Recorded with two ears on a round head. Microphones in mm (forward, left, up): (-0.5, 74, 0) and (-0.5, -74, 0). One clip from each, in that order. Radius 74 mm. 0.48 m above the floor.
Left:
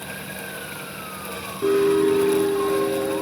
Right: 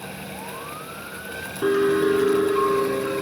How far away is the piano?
About 3 m.